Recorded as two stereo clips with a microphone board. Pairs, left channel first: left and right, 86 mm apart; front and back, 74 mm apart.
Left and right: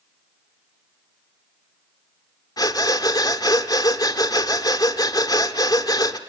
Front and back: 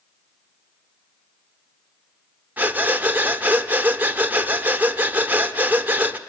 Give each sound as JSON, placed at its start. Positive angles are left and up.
{"t": 2.6, "sound": "breathing", "azimuth_deg": 115, "distance_m": 1.2}